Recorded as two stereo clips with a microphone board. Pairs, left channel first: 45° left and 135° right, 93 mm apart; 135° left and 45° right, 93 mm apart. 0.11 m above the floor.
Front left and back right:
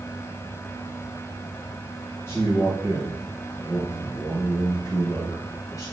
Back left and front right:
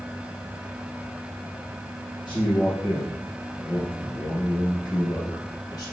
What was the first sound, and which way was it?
A man speaking, 105° left.